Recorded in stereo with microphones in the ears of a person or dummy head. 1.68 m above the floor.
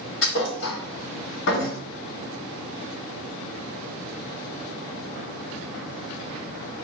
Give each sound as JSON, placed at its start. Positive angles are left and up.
{"t": 0.2, "sound": "a thud", "side_deg": 60, "distance_m": 1.8}